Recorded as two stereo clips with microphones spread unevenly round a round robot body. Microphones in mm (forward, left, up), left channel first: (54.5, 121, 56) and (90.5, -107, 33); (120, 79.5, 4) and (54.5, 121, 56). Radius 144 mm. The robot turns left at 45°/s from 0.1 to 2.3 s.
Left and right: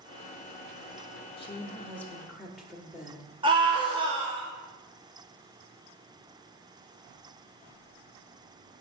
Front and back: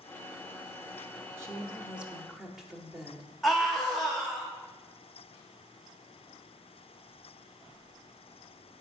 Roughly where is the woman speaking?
Ahead left.